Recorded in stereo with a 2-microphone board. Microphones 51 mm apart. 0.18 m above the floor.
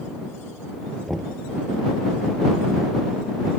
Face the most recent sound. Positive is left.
turn(degrees=5)  # may be behind; listen again after turning